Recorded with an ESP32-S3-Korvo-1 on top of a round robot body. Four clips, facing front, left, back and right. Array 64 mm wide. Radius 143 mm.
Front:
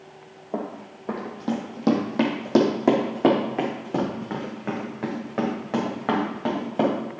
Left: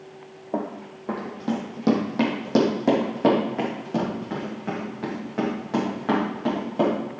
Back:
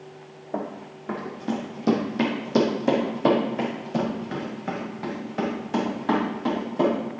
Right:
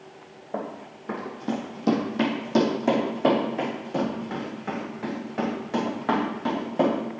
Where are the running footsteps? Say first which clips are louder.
Left 4 dB, even; 55° left, 1.4 m; by 7.0 s 5° left, 5.5 m.